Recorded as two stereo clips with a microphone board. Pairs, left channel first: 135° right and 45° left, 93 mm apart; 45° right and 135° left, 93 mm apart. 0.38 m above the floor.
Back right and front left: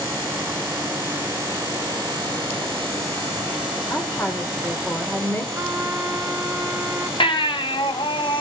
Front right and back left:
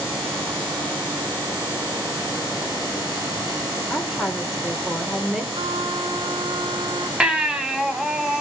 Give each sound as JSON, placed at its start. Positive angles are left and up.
{"t": 3.9, "sound": "a woman speaking", "azimuth_deg": -150, "distance_m": 1.4}
{"t": 5.5, "sound": "a trumpet", "azimuth_deg": 115, "distance_m": 2.0}
{"t": 7.2, "sound": "a baby crying", "azimuth_deg": -145, "distance_m": 1.9}